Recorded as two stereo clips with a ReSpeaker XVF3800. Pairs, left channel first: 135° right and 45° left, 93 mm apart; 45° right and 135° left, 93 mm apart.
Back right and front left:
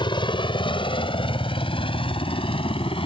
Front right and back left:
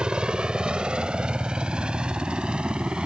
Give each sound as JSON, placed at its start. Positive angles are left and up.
{"t": 0.0, "sound": "a helicopter", "azimuth_deg": -145}